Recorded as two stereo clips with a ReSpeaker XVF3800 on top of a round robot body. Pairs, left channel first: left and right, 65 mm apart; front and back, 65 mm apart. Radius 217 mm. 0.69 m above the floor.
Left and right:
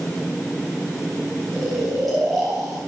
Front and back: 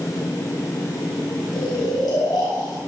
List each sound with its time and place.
1.5 s snoring: straight ahead, 3 m